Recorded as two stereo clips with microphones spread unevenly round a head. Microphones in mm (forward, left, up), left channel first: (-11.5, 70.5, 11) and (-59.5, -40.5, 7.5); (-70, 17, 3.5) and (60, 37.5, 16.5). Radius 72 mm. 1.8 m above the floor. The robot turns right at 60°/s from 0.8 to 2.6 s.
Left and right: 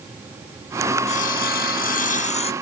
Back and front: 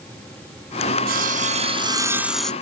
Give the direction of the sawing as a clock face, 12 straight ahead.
11 o'clock.